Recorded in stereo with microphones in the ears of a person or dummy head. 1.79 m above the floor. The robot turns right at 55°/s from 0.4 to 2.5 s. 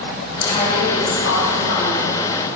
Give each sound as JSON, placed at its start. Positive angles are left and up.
{"t": 0.4, "sound": "a woman speaking", "azimuth_deg": 35, "distance_m": 3.5}